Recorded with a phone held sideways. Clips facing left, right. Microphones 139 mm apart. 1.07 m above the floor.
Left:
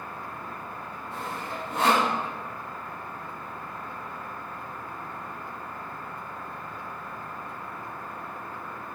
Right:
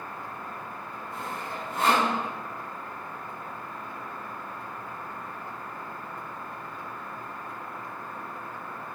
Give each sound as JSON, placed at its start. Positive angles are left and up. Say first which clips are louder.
{"t": 1.1, "sound": "sawing", "louder": "left 1 dB", "side_deg": 80, "distance_m": 1.0}